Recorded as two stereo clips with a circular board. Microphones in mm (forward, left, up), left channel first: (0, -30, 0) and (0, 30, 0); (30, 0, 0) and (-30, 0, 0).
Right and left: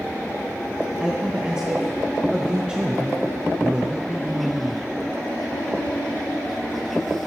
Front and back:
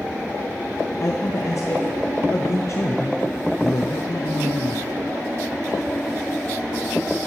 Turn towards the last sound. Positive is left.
turn(degrees=15)